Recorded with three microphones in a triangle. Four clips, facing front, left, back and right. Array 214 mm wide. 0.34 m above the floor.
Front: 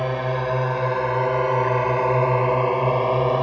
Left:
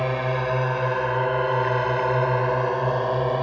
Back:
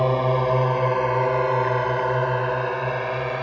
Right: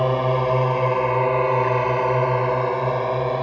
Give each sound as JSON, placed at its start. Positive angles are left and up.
{"t": 0.0, "sound": "a drone", "azimuth_deg": -130}